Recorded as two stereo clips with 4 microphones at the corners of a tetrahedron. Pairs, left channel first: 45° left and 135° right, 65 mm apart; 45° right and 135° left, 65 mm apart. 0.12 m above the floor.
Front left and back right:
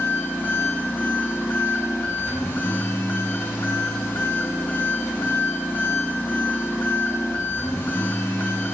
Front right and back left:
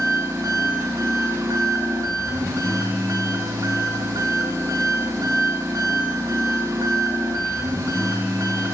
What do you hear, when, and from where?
0.0 s an engine running: 100° left, 6 m